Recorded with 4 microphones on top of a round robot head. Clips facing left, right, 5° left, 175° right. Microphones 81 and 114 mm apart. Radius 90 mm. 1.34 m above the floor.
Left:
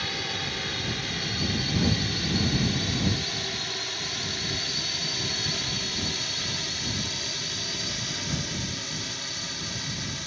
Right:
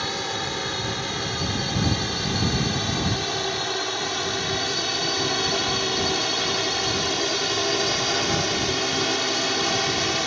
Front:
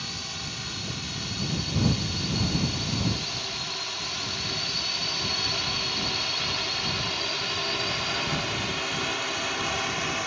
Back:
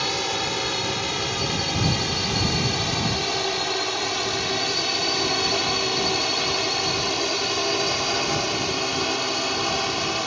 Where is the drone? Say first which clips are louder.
Right 5 dB, back 13 dB; 155° right; by 10.3 s 110° right.